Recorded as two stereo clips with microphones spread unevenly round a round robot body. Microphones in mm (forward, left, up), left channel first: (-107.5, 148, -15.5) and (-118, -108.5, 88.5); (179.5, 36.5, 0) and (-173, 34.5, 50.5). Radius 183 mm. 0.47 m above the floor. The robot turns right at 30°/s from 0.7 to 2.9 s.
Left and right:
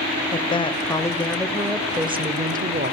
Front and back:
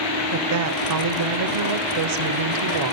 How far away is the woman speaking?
About 2.0 m.